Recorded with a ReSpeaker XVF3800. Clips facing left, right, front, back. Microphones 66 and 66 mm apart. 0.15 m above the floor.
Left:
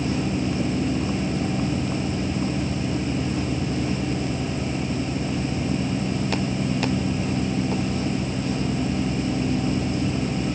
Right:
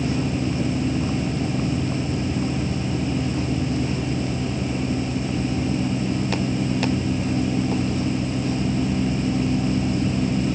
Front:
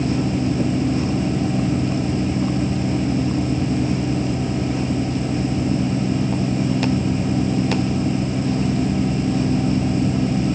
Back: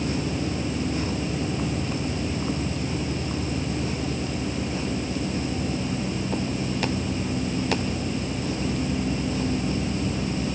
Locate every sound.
Only background noise.